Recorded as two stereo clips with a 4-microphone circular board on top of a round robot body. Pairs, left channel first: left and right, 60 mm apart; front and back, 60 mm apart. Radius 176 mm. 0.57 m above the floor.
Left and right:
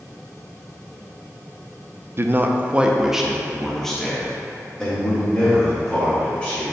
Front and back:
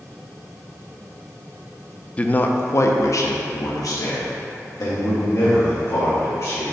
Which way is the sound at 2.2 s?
65° right.